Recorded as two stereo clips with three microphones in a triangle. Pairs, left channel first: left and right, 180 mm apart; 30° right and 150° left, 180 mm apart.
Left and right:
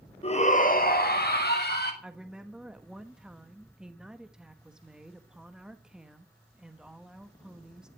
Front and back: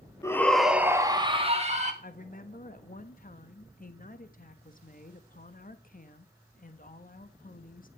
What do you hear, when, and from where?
0.2 s a shout: 40° left, 1.7 m; by 1.9 s 105° left, 2.5 m
2.0 s a woman speaking: 5° right, 1.2 m